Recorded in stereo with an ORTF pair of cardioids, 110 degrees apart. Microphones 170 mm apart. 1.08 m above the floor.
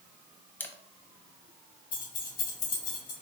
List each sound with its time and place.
0.6 s a camera shutter: 10° left, 0.8 m
1.9 s keys jangling: 55° left, 2.5 m